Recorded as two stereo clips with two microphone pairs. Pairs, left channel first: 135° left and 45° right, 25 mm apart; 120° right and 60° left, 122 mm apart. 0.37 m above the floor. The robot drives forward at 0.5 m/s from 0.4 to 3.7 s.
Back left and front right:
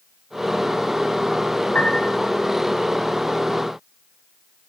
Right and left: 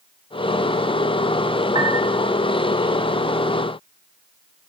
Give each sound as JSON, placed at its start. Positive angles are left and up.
{"t": 1.8, "sound": "a piano", "azimuth_deg": 105, "distance_m": 3.0}